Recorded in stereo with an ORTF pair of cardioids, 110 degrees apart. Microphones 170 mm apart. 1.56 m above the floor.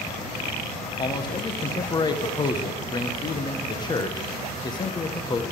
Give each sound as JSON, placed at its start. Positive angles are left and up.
{"t": 1.0, "sound": "a man speaking", "azimuth_deg": 25, "distance_m": 1.3}